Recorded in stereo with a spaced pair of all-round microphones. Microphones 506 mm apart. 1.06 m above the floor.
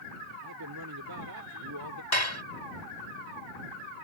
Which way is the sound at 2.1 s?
65° left (ahead or behind).